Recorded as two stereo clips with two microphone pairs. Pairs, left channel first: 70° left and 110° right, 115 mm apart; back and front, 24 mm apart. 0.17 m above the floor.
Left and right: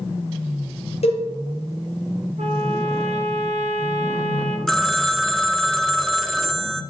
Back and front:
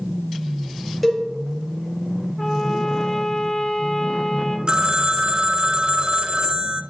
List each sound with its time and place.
1.0 s a cowbell: 90° left, 3 m
2.4 s a trumpet: 95° right, 1.4 m
4.7 s a phone ringing: 15° right, 0.7 m